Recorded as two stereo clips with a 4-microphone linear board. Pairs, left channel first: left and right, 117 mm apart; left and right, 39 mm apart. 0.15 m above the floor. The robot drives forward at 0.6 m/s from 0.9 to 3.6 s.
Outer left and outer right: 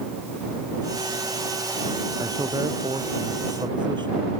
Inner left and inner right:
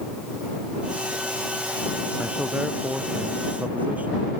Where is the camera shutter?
I don't hear a camera shutter.